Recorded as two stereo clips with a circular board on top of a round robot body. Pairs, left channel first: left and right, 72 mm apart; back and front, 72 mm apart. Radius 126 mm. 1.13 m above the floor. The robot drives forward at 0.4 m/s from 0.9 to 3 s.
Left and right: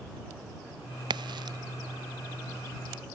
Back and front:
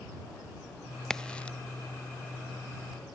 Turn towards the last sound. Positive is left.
turn(degrees=-135)